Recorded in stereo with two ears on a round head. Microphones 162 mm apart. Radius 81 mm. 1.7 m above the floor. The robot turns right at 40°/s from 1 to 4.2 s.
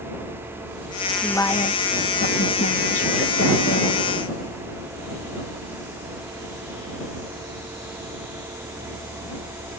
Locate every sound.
1.2 s a woman speaking: 5° left; by 4.0 s 120° left